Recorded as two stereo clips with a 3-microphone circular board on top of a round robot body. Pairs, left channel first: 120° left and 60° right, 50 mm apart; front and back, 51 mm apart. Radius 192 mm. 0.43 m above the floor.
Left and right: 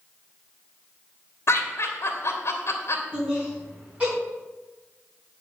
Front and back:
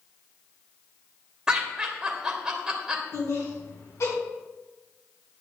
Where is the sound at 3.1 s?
5° left, 5 m.